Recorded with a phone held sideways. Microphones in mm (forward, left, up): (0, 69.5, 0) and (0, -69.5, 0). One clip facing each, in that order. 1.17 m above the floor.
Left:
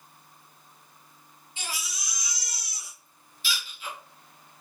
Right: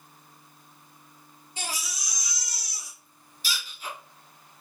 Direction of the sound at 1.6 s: 40° right (ahead or behind).